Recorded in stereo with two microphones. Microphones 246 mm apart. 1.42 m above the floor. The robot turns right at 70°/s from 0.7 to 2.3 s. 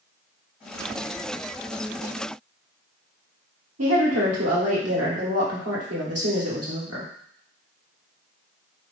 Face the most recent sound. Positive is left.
turn(degrees=-75)  # may be behind; listen again after turning